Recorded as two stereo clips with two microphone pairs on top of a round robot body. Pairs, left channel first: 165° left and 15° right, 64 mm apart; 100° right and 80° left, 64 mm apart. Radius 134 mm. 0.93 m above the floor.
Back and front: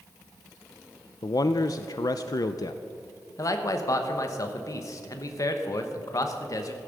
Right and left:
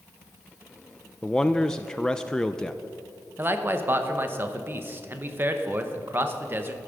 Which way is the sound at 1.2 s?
175° left.